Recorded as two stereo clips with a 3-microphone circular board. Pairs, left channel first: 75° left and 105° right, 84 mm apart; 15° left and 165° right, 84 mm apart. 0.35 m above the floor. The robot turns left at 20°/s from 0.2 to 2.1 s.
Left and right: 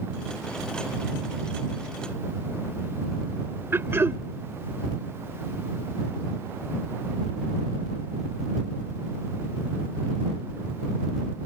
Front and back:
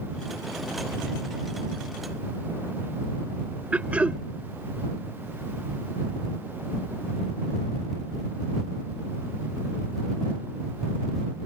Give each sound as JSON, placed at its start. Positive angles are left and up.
{"t": 3.7, "sound": "throat clearing", "azimuth_deg": -110}